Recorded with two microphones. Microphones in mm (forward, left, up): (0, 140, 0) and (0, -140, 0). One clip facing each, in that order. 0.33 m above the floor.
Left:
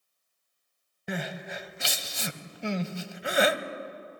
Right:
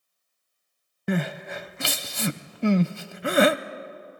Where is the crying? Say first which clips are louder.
Right 8 dB; 60° right (ahead or behind), 0.6 m.